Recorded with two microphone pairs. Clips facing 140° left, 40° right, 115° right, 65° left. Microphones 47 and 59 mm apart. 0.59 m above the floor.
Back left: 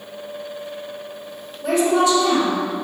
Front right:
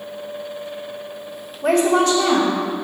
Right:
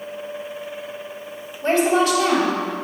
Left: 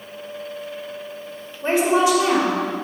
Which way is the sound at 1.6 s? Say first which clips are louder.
Front right 1 dB, even; 5° right.